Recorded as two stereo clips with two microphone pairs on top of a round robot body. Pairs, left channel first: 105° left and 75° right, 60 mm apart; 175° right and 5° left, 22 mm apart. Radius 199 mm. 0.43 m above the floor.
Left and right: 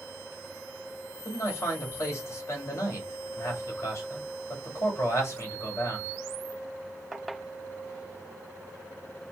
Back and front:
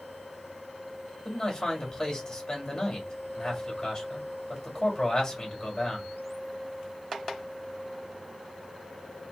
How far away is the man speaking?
About 1.9 m.